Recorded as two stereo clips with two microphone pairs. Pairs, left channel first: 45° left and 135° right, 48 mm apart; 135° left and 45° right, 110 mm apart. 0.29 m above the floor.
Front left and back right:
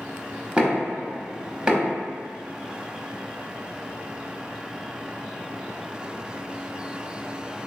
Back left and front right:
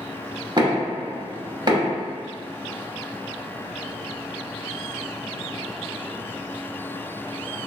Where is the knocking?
75° right, 1.0 m.